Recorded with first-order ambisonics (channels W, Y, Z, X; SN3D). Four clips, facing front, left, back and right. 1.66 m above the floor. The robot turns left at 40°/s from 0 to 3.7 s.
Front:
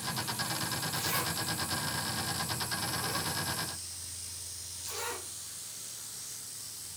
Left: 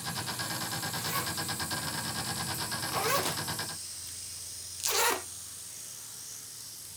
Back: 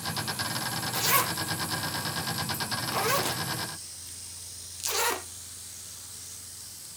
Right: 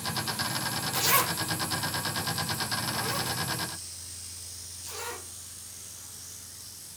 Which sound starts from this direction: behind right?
A zipper, at 0.9 s.